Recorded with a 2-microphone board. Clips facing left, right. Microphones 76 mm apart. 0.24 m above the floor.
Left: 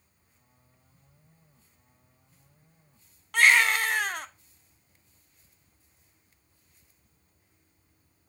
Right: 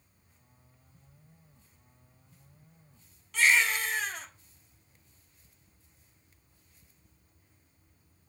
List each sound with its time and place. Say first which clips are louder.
3.3 s a baby crying: left 5 dB; 60° left (ahead or behind), 0.6 m